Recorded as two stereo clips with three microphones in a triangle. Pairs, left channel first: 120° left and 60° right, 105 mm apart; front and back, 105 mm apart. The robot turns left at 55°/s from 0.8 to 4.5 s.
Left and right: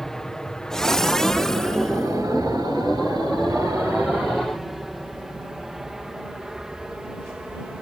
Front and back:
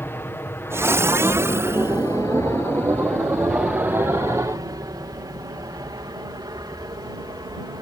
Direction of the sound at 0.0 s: 40° left.